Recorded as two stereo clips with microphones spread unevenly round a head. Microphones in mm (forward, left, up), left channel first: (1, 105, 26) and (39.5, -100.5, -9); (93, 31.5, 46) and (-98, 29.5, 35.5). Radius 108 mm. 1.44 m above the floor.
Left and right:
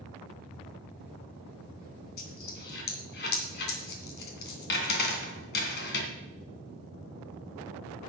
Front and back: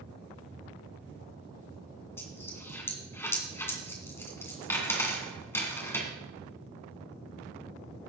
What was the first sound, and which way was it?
A dropped coin, 75° left.